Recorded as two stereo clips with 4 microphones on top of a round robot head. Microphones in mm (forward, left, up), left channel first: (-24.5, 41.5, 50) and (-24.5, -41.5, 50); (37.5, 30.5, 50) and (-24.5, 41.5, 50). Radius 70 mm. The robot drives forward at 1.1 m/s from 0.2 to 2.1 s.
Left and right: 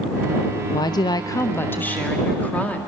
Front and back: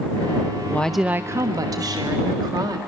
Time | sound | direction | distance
0.7 | a woman speaking | 50° left | 0.6 m